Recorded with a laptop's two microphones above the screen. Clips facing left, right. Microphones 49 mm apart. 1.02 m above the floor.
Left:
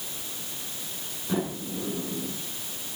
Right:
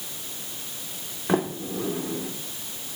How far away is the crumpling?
I don't hear crumpling.